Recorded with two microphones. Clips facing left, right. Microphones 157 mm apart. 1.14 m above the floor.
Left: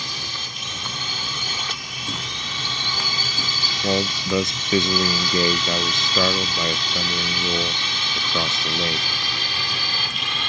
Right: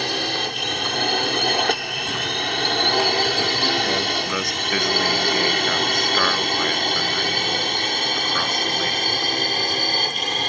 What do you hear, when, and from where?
0.0 s a drone: 75° right (ahead or behind); by 10.5 s 45° right (ahead or behind)
3.8 s a man speaking: 25° left (ahead or behind)